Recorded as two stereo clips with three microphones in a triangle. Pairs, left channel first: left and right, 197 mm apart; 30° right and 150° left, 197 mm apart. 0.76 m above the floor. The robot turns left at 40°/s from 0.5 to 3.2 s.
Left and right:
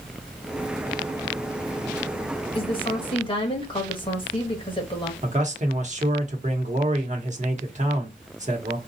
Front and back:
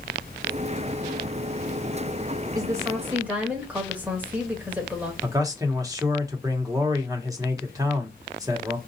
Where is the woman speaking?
105° left, 1.1 m; by 5.1 s 80° left, 1.1 m.